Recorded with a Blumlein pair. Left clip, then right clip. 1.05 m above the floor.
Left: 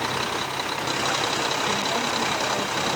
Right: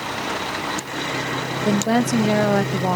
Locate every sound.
1.6 s a woman speaking: 45° right, 0.6 m